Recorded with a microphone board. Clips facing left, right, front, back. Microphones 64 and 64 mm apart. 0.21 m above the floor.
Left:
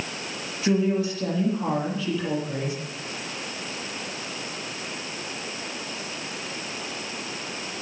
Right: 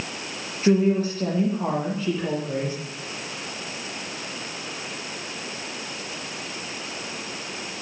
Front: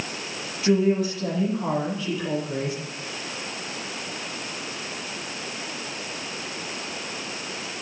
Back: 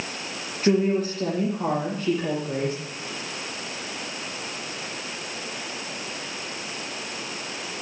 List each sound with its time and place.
0.6 s a woman speaking: 135° right, 6.5 m